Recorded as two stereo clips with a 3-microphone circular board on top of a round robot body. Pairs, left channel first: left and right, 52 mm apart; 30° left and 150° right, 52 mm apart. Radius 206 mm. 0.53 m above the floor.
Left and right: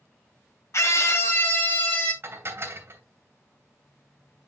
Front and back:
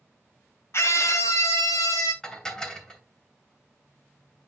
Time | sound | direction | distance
0.7 | a scream | 60° left | 1.6 m
2.2 | dishes clattering | 45° right | 2.5 m